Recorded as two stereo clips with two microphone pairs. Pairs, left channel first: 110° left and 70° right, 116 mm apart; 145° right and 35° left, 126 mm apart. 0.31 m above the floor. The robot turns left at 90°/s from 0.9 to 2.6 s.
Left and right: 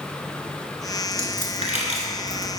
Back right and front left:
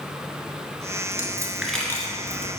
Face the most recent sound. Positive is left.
turn(degrees=-140)